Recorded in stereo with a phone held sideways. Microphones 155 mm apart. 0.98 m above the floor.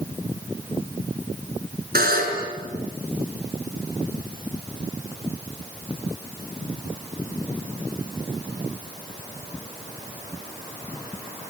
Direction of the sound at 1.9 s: 85° right.